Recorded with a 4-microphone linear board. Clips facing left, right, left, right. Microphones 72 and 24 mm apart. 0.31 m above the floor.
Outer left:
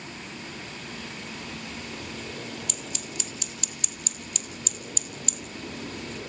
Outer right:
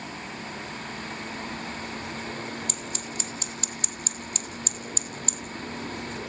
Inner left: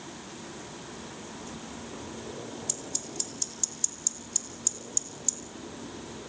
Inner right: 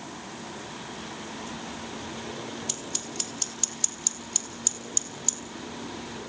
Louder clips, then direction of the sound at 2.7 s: Outer right 2 dB, inner right 3 dB; 45° right (ahead or behind).